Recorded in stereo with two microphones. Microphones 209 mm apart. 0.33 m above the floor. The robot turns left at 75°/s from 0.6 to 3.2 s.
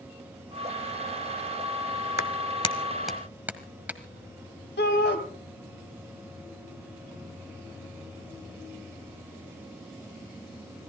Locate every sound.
2.2 s a clap: 50° left (ahead or behind), 1.3 m; by 4.0 s 10° right (ahead or behind), 1.3 m
4.8 s a shout: 55° left (ahead or behind), 1.9 m